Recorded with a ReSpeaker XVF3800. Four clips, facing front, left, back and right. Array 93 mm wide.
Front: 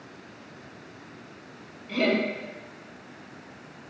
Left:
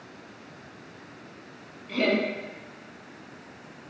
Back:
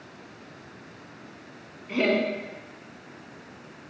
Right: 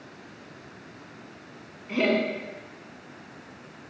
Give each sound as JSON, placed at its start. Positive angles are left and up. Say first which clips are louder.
{"t": 1.9, "sound": "laughter", "louder": "right 1 dB, back 1 dB", "azimuth_deg": -135, "distance_m": 0.7}